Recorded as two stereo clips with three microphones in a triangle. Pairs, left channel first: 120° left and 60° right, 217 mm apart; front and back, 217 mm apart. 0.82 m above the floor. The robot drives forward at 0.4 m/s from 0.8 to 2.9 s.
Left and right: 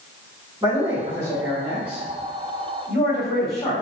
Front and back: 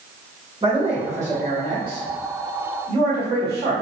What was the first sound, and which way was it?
A man speaking, 125° right.